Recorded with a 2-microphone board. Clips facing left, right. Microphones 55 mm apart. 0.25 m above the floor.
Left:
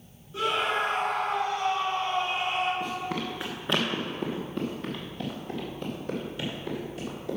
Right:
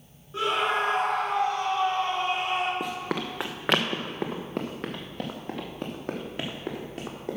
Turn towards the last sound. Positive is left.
turn(degrees=-55)  # may be behind; listen again after turning